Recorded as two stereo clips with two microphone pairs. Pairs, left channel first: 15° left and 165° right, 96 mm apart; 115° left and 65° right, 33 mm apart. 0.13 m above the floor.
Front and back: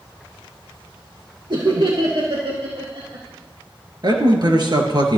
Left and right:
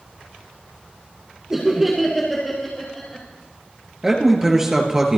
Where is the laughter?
140° right, 2.5 m; by 3.2 s 175° right, 3.5 m.